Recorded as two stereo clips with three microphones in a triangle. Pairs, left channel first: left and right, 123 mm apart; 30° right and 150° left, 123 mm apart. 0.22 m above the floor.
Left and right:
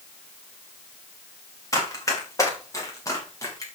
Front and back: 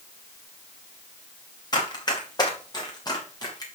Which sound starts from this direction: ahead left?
Running footsteps, at 1.7 s.